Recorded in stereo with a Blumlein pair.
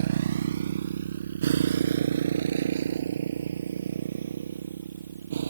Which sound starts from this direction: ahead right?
A motorcycle, at 0.0 s.